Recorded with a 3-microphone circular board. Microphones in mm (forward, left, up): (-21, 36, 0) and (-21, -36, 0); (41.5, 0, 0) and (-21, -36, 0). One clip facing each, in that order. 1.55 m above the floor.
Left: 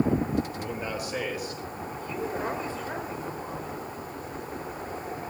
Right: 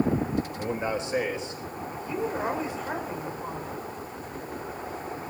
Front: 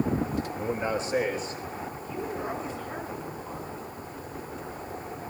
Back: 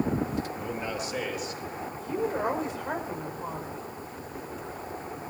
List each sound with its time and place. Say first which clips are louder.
0.6 s a man speaking: right 4 dB, front 4 dB; 30° right, 3.5 m; by 1.6 s 25° right, 4.5 m
2.0 s a woman speaking: right 3 dB, back 7 dB; 160° right, 5.5 m